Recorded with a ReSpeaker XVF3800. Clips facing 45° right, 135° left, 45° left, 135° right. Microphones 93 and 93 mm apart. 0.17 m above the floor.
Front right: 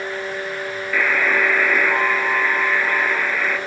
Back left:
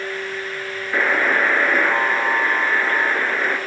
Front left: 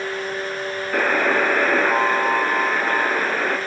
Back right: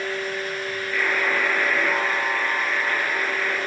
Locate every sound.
0.9 s a buzzer: 75° left, 2.5 m